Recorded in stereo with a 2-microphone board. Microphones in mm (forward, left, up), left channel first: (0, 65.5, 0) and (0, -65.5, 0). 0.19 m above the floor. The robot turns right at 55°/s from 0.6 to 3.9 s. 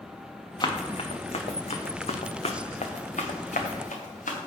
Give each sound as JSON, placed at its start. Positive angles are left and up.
{"t": 0.6, "sound": "running footsteps", "side_deg": 30, "distance_m": 1.1}